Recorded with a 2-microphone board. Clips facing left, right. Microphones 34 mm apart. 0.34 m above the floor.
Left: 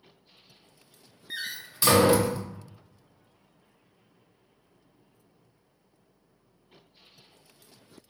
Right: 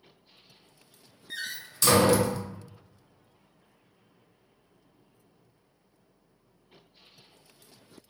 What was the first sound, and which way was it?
A door slam, 20° left (ahead or behind).